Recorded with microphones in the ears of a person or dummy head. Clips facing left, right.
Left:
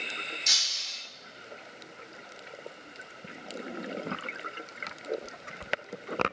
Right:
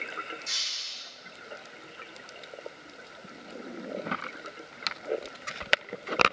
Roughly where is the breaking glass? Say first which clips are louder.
Left 2 dB; left.